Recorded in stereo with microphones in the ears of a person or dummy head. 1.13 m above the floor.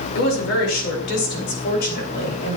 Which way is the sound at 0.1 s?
80° left.